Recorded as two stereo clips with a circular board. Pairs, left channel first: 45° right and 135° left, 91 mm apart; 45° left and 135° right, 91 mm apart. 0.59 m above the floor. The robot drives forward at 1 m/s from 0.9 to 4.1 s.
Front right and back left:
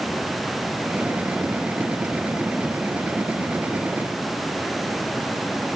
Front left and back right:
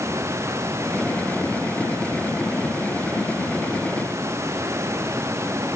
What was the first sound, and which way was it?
Only background noise.